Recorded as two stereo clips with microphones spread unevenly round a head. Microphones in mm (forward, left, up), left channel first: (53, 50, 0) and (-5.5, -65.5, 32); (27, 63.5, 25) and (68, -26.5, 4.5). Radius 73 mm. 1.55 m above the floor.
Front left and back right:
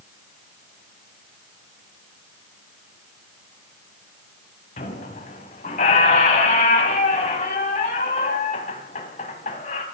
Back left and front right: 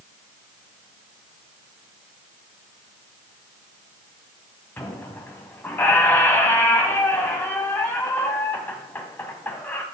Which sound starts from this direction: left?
A squeak, at 4.8 s.